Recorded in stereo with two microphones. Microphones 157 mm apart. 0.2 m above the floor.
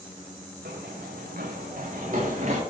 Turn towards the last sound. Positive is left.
turn(degrees=-50)  # may be behind; listen again after turning